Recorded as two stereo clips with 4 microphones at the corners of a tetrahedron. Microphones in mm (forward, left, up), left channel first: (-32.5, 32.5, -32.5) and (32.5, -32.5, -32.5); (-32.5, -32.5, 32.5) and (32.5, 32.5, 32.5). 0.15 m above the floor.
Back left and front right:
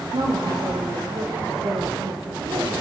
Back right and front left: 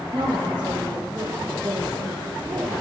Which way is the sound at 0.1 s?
15° right.